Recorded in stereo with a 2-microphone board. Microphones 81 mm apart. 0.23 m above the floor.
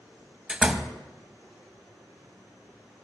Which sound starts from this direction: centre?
A door slam, at 0.5 s.